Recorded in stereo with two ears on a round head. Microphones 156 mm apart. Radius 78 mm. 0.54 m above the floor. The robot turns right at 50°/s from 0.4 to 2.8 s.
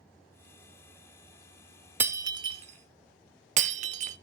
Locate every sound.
2.0 s breaking glass: 10° right (ahead or behind), 0.9 m; by 4.2 s 45° right (ahead or behind), 0.9 m